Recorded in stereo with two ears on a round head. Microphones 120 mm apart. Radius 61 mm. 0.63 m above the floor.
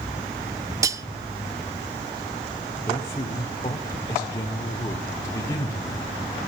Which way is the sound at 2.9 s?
20° left (ahead or behind).